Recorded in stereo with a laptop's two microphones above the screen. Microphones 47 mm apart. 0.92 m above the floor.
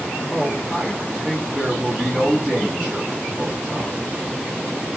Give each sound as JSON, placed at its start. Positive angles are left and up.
{"t": 0.3, "sound": "a man speaking", "side_deg": 5, "distance_m": 0.8}